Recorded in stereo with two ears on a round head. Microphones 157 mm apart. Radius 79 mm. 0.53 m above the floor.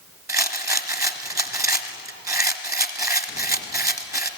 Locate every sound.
0.3 s a rattle: 20° right (ahead or behind), 1.1 m